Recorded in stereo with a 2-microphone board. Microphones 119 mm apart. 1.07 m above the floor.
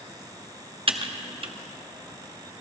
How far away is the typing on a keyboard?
About 0.8 m.